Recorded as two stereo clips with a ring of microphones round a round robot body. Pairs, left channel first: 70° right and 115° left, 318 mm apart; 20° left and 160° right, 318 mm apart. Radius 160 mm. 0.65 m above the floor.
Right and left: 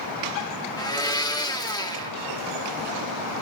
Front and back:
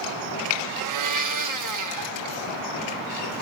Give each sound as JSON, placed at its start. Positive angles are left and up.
{"t": 0.8, "sound": "a blender", "azimuth_deg": -145, "distance_m": 1.1}